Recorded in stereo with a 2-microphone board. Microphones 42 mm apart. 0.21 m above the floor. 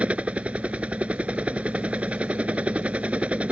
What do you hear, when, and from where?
0.0 s a helicopter: 30° right (ahead or behind)